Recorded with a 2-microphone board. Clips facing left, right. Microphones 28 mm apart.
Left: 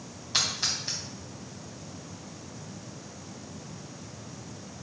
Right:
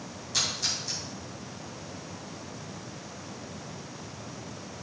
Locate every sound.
0.3 s a splash: 40° left (ahead or behind), 3 m